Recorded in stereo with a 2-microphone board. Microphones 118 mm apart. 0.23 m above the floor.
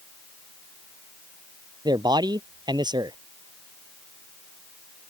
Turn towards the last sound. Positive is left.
turn(degrees=-35)  # may be behind; listen again after turning